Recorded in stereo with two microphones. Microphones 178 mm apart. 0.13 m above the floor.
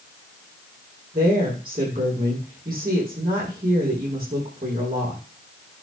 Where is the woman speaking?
55° right (ahead or behind), 6.5 m.